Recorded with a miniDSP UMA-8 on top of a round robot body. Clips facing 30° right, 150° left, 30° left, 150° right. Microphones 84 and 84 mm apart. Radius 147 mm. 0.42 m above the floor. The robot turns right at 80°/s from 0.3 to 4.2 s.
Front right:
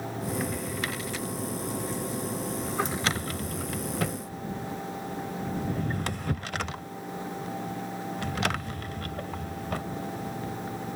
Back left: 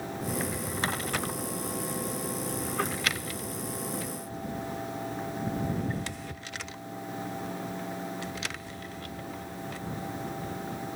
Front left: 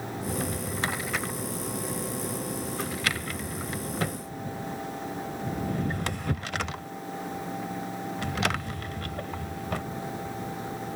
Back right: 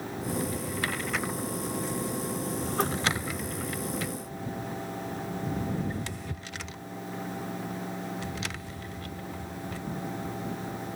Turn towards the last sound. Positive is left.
turn(degrees=5)